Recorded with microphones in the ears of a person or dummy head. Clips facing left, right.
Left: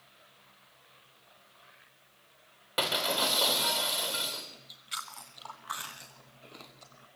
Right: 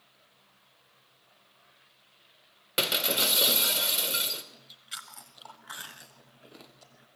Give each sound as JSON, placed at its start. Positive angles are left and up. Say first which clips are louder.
{"t": 2.8, "sound": "breaking glass", "louder": "even", "side_deg": -30, "distance_m": 2.5}
{"t": 4.5, "sound": "chewing", "louder": "left 4 dB", "side_deg": -10, "distance_m": 1.0}